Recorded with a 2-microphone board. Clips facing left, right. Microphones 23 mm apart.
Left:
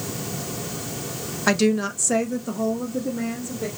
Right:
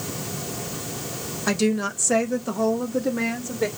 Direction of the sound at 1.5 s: 20° left (ahead or behind).